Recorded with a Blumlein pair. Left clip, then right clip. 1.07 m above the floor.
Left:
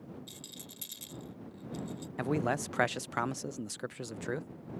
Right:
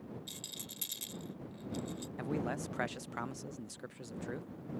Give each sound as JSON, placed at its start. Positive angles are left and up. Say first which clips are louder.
{"t": 0.3, "sound": "a rattle", "louder": "right 2 dB", "azimuth_deg": -10}
{"t": 2.2, "sound": "a man speaking", "louder": "left 7 dB", "azimuth_deg": 25}